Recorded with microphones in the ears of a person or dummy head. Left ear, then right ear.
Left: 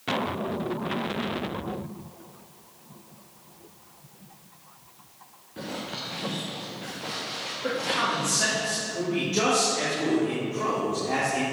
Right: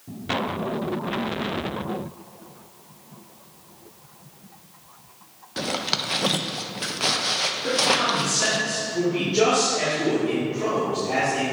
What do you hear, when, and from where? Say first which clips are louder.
5.6 s a zipper: right 9 dB; 75° right (ahead or behind), 0.7 m
7.6 s a man speaking: right 4 dB; 55° left (ahead or behind), 3 m